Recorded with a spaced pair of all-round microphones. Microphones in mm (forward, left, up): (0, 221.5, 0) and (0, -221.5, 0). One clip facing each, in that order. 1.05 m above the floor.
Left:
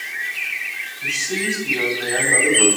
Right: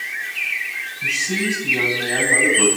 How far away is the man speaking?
About 8.5 m.